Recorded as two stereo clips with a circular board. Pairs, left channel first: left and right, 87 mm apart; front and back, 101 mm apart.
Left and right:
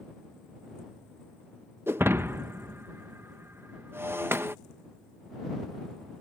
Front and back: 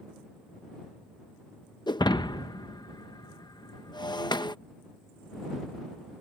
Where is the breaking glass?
30° right.